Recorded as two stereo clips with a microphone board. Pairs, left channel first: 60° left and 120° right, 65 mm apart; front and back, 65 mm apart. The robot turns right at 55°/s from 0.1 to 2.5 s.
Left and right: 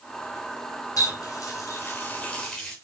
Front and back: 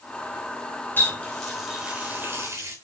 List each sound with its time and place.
1.0 s a running tap: 55° left, 3.5 m; by 2.8 s 140° left, 3.5 m